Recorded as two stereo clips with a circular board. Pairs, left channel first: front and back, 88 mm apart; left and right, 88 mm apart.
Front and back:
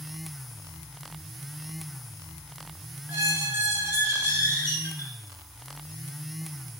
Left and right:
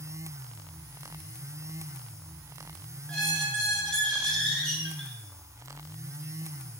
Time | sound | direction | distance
3.1 | a squeak | 165° left | 1.0 m